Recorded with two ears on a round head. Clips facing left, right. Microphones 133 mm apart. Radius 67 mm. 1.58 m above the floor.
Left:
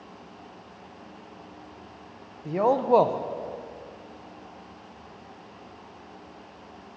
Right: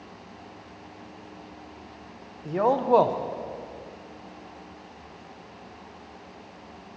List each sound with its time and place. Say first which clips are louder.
2.5 s a man speaking: even; 5° left (ahead or behind), 0.6 m